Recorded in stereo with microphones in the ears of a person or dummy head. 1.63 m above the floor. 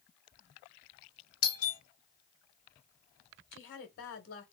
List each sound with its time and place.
1.4 s a doorbell: 80° left, 0.9 m
3.5 s a woman speaking: 60° left (ahead or behind), 1.2 m